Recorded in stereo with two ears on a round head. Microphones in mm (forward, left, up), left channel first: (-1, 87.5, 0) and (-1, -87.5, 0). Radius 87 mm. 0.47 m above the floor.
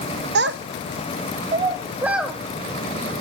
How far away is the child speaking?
About 0.7 m.